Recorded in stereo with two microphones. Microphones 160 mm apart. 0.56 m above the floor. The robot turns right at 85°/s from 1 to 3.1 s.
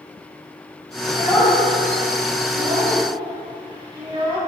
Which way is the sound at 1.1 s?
25° left (ahead or behind).